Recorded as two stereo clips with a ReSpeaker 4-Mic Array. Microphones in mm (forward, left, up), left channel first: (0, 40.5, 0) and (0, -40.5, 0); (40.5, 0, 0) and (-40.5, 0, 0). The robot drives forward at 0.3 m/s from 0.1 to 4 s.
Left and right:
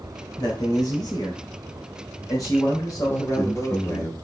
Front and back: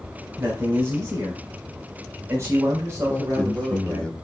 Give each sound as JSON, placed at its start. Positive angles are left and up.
{"t": 0.4, "sound": "a man speaking", "azimuth_deg": 115, "distance_m": 3.5}
{"t": 3.1, "sound": "a man speaking", "azimuth_deg": 55, "distance_m": 1.4}